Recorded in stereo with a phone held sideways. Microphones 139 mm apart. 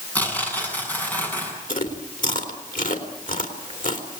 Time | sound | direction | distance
0.1 | tearing paper | 10° left (ahead or behind) | 8 m
1.7 | chewing | 75° left (ahead or behind) | 3 m